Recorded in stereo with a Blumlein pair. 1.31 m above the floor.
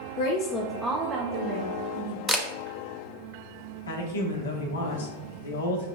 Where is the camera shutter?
Straight ahead, 0.6 m.